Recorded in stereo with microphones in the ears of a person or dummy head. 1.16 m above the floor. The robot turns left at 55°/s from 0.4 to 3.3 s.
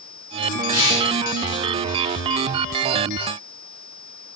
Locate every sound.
0.7 s tearing paper: 10° right (ahead or behind), 1.6 m; by 1.1 s 35° right (ahead or behind), 1.6 m